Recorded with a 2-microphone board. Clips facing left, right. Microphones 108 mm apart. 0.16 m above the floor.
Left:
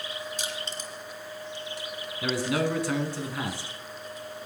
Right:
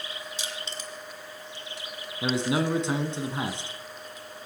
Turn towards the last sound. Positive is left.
turn(degrees=-20)  # may be behind; listen again after turning